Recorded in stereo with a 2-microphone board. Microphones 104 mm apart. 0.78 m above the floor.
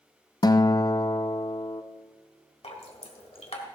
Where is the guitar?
35° left (ahead or behind), 0.5 m.